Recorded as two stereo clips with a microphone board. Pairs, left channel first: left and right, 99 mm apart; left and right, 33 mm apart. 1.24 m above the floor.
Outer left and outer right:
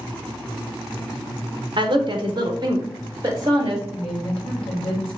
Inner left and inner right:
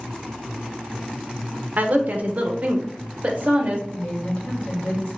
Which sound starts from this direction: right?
A woman speaking, at 1.8 s.